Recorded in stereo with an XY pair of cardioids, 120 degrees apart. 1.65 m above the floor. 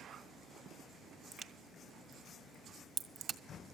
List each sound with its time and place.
1.3 s a crack: 40° right, 1.7 m